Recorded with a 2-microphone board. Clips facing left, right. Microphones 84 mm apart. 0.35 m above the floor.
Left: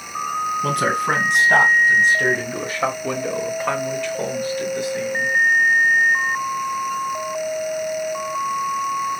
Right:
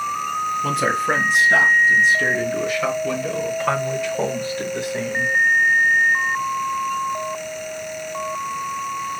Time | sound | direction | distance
0.6 | a man speaking | 65° left (ahead or behind) | 2.5 m